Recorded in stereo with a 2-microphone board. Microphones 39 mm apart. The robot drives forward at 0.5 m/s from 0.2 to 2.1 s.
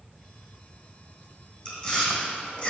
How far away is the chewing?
About 2 m.